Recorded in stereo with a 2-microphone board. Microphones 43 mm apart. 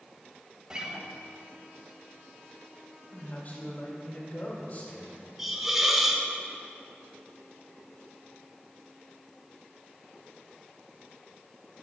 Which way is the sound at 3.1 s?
40° left (ahead or behind).